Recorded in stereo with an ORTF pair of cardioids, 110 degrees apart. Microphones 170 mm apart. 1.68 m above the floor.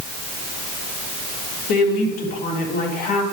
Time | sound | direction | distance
1.7 | a woman speaking | 65° left | 3.5 m